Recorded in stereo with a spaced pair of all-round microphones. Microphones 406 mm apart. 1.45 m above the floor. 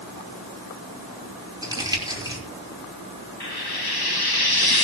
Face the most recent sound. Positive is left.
turn(degrees=65)  # may be behind; listen again after turning